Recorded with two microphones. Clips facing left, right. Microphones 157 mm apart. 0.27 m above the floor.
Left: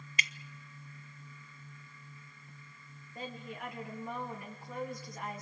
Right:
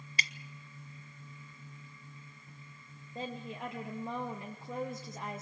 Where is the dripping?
35° right (ahead or behind), 0.9 m.